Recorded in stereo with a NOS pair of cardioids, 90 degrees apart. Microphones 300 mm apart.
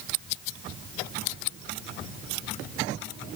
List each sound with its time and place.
Only background noise.